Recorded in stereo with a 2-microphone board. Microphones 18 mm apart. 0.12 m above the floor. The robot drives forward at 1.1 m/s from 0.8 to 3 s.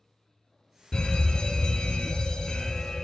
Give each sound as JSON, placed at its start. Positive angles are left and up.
{"t": 0.9, "sound": "a fire alarm", "side_deg": 45, "distance_m": 3.0}